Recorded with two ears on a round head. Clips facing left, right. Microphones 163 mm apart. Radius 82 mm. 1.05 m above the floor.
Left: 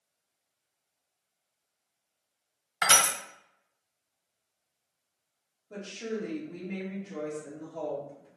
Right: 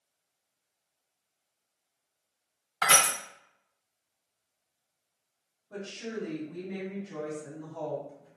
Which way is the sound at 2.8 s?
25° left (ahead or behind).